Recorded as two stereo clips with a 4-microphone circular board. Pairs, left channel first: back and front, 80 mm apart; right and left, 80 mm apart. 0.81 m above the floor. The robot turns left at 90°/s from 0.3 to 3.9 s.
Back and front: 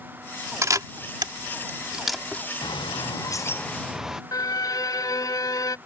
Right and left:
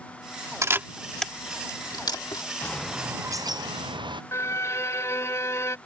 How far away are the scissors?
I don't hear scissors.